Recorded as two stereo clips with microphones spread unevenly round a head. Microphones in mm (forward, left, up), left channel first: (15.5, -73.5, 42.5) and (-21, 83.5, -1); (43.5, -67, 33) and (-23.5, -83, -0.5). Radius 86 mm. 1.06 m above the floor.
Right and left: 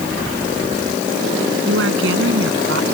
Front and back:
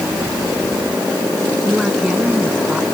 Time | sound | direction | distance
1.7 | a woman speaking | 105° left | ?